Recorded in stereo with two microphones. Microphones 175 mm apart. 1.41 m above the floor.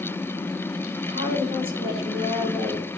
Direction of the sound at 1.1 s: 30° right (ahead or behind).